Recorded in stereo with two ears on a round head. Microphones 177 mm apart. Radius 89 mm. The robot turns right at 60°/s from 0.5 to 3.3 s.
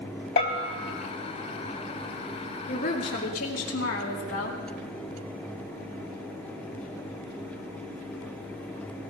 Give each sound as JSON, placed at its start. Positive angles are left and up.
{"t": 0.4, "sound": "a bell", "side_deg": 50, "distance_m": 2.5}
{"t": 2.7, "sound": "a woman speaking", "azimuth_deg": 35, "distance_m": 2.5}